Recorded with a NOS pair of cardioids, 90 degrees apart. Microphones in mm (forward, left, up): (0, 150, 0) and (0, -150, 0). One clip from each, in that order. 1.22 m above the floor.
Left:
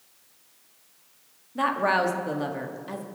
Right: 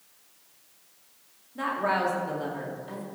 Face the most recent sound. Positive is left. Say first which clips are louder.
# left 4 dB
turn(degrees=40)